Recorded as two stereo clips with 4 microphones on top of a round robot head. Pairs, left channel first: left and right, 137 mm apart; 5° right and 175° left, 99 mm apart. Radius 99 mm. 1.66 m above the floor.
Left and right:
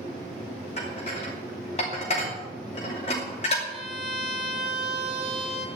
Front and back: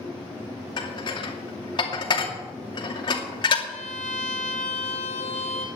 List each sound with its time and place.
0.8 s dishes clattering: 35° left, 2.5 m
3.7 s a violin: 35° right, 1.9 m